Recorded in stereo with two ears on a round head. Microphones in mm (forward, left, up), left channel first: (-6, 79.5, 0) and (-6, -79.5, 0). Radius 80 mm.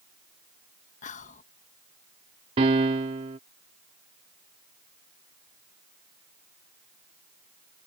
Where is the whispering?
40° left (ahead or behind).